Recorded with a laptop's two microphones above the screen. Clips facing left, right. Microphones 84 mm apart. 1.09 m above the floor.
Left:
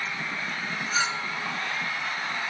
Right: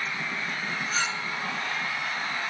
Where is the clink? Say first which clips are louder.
Left 4 dB; 15° left (ahead or behind), 0.5 m.